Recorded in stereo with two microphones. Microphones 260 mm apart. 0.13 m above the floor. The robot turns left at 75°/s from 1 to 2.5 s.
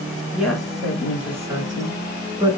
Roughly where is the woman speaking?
Centre.